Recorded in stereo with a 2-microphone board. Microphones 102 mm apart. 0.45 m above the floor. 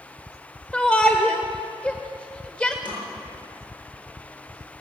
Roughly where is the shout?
Centre.